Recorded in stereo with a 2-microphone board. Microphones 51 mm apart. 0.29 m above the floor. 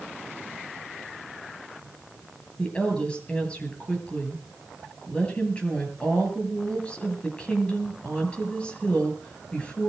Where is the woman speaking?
20° left (ahead or behind), 6.5 m.